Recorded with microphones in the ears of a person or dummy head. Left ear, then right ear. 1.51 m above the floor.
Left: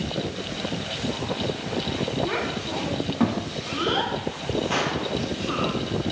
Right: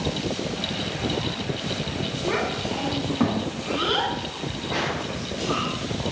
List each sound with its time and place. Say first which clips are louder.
2.2 s a child speaking: right 2 dB; 10° left (ahead or behind), 1.3 m
4.7 s a gunshot: right 1 dB; 45° left (ahead or behind), 1.0 m